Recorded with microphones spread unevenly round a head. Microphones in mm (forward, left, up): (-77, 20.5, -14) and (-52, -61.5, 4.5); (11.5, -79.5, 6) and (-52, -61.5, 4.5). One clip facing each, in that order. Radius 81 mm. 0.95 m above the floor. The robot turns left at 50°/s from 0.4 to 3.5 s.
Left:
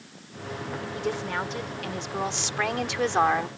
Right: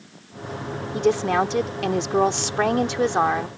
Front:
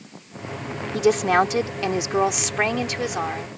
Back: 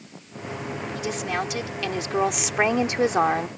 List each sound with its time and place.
0.9 s a woman speaking: 35° right; by 3.5 s 160° right